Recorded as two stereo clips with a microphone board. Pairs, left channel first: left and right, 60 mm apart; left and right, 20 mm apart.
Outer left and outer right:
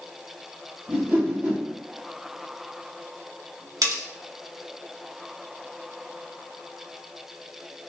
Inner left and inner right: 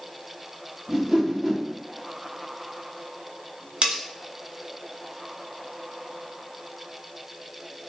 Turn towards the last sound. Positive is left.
turn(degrees=-80)